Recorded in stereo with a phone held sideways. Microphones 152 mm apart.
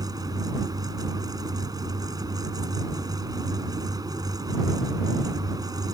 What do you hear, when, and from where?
0.0 s a fan: 25° right (ahead or behind)